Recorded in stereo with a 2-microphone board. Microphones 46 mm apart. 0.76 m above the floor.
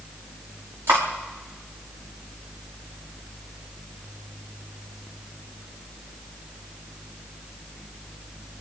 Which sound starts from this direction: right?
Cutlery clinking, at 0.9 s.